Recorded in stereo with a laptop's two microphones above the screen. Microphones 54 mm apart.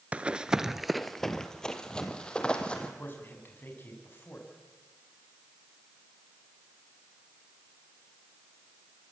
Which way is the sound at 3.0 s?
35° left (ahead or behind).